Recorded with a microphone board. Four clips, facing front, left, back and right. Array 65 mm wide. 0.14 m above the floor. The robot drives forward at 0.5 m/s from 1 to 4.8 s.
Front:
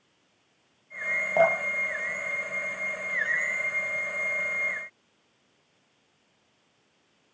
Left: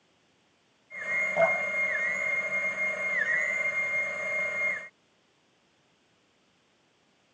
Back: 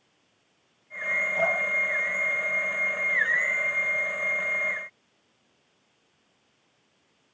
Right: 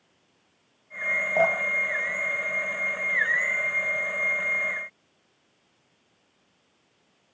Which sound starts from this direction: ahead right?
Dripping, at 1.4 s.